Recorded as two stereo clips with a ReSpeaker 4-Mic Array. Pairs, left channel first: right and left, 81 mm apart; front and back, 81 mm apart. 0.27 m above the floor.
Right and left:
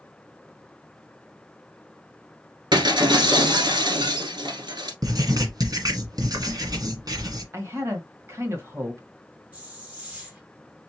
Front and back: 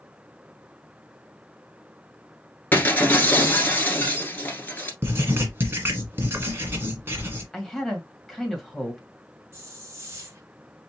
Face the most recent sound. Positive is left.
turn(degrees=150)